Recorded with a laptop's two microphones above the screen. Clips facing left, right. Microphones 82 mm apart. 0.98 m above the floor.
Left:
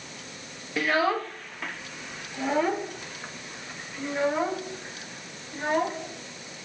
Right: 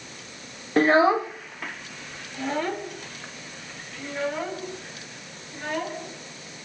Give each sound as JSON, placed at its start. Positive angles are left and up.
{"t": 0.8, "sound": "a child speaking", "side_deg": -45, "distance_m": 0.5}